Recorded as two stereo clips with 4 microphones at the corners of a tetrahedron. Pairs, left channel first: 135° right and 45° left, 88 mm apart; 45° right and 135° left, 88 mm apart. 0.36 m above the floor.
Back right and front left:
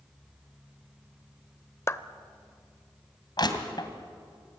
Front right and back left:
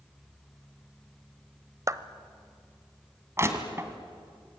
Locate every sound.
1.9 s a clap: 175° left, 0.9 m
3.4 s crushing: 170° right, 2.5 m